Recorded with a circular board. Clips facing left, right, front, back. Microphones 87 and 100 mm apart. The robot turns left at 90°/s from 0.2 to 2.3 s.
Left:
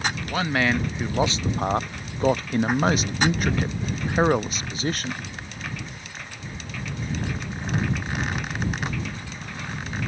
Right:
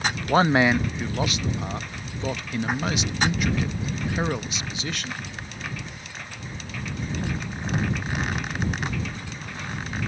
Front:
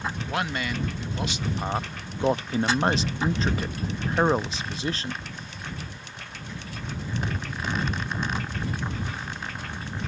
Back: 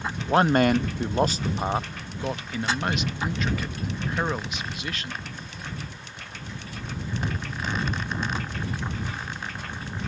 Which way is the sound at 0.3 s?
125° right.